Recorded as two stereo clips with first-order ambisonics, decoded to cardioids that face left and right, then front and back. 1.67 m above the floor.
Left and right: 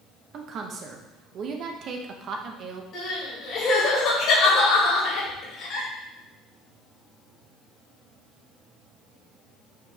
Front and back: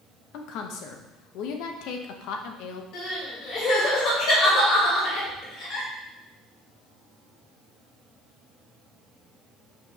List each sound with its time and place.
0.3 s a woman speaking: 35° right, 0.9 m
2.9 s crying: 40° left, 3 m